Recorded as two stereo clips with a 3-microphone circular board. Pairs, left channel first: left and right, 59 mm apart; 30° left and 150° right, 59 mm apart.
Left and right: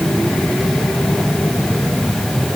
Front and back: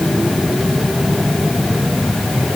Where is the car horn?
I don't hear a car horn.